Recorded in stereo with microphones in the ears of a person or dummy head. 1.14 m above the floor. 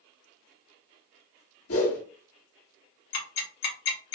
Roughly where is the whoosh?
Left.